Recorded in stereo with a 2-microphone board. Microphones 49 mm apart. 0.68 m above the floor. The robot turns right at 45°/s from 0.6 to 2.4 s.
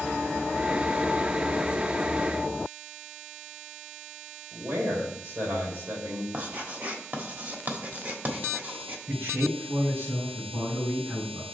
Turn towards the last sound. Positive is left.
turn(degrees=-55)  # may be behind; listen again after turning